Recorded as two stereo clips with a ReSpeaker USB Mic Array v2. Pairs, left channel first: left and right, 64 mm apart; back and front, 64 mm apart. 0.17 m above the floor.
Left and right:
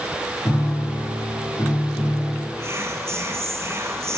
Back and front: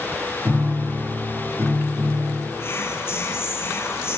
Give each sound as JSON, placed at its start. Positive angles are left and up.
{"t": 0.5, "sound": "a piano", "azimuth_deg": 50, "distance_m": 8.5}
{"t": 2.6, "sound": "whispering", "azimuth_deg": -130, "distance_m": 2.5}